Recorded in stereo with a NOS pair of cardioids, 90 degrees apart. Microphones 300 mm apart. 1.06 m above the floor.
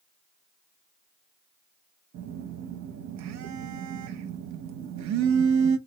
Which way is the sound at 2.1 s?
65° right.